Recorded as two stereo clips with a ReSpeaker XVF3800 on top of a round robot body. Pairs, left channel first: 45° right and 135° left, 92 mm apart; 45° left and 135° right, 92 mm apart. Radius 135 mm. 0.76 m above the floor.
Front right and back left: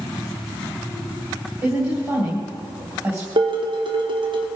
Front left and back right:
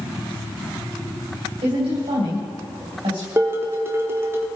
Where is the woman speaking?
160° right, 3.5 m.